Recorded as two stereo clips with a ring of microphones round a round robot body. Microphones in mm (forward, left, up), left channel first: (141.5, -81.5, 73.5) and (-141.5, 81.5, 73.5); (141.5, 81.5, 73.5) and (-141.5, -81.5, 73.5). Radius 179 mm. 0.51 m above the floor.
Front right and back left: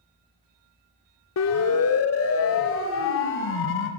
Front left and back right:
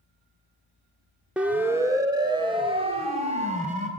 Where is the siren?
65° right, 2.5 m; by 3.9 s 85° right, 4.5 m.